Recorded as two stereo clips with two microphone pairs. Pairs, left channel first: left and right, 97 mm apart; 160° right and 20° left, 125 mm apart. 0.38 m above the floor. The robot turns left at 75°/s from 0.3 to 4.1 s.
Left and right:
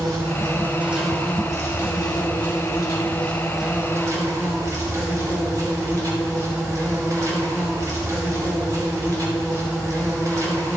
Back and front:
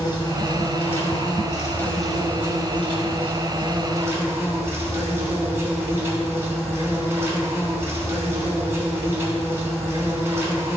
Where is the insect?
120° right, 3 m; by 10.8 s 45° right, 3 m.